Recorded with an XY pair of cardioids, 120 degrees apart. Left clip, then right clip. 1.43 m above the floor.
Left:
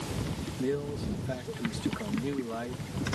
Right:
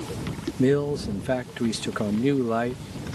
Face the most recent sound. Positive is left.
turn(degrees=-60)